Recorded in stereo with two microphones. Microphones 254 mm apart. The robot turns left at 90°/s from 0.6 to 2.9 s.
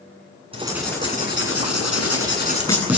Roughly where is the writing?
Behind.